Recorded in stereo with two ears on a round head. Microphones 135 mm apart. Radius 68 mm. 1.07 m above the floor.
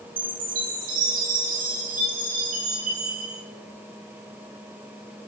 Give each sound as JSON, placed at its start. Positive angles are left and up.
{"t": 0.2, "sound": "a chime", "side_deg": -60, "distance_m": 7.0}